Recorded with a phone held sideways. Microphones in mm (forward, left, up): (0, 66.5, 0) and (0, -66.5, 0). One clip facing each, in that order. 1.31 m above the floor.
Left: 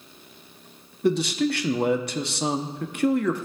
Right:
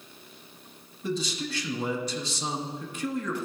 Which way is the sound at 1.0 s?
65° left (ahead or behind).